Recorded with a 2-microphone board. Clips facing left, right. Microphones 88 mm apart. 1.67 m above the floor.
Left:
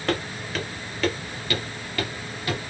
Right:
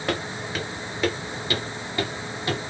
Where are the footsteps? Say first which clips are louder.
Left 1 dB; 5° right (ahead or behind), 1.7 m; by 2.6 s 25° right (ahead or behind), 1.9 m.